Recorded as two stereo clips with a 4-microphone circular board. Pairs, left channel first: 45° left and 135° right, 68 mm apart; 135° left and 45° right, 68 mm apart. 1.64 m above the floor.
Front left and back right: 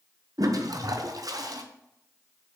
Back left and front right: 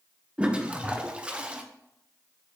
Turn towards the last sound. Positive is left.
turn(degrees=-120)